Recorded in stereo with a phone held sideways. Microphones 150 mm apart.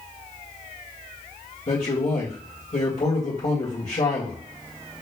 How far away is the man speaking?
About 1.8 m.